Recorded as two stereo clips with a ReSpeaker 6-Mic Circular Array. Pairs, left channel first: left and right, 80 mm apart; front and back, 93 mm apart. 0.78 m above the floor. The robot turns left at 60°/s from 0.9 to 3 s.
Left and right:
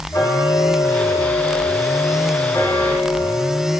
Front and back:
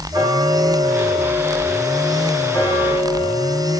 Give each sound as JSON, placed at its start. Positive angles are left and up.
{"t": 0.1, "sound": "ticking", "azimuth_deg": 135, "distance_m": 3.5}